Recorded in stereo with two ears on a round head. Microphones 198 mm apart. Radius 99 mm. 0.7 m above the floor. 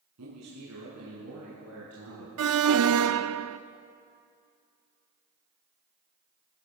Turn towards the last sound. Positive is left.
turn(degrees=-70)  # may be behind; listen again after turning